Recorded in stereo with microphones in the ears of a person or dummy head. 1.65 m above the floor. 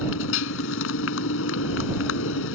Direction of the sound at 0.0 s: 75° left (ahead or behind).